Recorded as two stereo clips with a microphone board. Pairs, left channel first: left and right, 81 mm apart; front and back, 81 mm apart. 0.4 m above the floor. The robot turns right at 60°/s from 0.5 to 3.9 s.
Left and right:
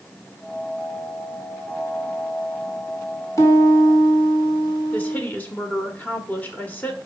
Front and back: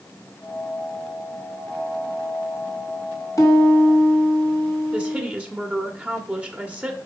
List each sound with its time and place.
3.4 s a piano: 45° left, 4 m; by 5.2 s 75° left, 4 m
4.9 s a woman speaking: 130° left, 1.5 m